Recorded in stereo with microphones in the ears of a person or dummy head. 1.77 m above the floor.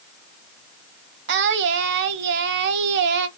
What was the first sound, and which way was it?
Singing, 65° right (ahead or behind).